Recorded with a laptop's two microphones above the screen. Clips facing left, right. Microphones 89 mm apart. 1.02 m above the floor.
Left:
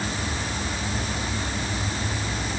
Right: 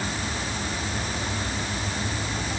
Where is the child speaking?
No child speaking in this recording.